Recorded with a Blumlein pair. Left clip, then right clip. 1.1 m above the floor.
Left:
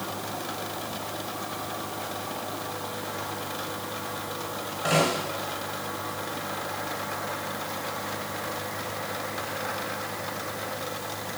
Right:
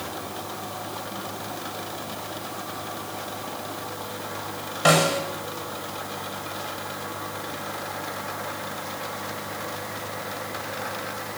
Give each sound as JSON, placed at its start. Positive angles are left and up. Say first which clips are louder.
{"t": 4.8, "sound": "a snare drum", "louder": "right 5 dB", "azimuth_deg": -30, "distance_m": 7.0}